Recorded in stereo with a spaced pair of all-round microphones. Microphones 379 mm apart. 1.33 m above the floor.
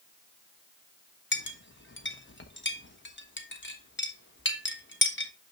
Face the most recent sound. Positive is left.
turn(degrees=30)  # may be behind; listen again after turning